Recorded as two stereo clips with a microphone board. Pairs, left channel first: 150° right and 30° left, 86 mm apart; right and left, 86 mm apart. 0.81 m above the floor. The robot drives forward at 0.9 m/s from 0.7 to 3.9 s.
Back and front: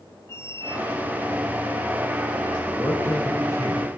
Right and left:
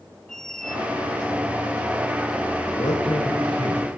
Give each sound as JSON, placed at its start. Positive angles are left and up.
{"t": 0.3, "sound": "a squeak", "azimuth_deg": -170, "distance_m": 0.7}
{"t": 2.8, "sound": "a man speaking", "azimuth_deg": -85, "distance_m": 4.0}